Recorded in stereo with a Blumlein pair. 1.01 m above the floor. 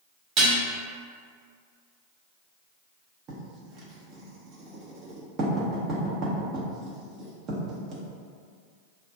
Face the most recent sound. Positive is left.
turn(degrees=-30)